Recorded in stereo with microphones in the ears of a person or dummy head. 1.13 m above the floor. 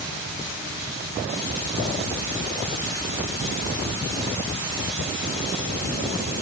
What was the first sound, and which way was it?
Only background noise.